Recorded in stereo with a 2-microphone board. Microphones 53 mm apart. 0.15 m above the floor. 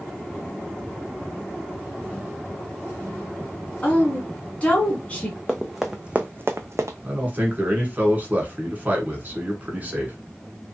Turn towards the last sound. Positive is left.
turn(degrees=-30)  # may be behind; listen again after turning